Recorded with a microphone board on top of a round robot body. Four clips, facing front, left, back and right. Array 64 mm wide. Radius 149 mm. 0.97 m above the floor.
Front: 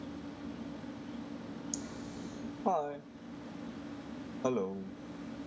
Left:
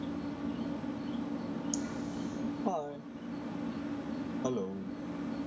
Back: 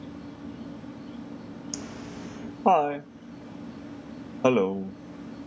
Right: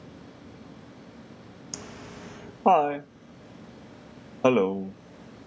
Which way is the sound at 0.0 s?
95° left.